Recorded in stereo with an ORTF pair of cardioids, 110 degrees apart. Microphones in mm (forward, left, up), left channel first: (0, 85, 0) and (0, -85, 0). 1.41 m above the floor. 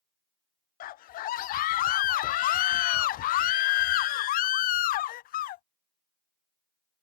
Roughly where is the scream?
Ahead left.